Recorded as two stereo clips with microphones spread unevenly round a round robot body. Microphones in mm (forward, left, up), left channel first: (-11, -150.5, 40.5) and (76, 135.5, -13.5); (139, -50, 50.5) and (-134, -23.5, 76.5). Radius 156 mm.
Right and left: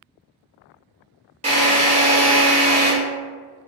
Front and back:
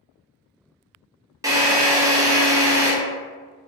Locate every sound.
1.4 s a drill: 95° left, 1.0 m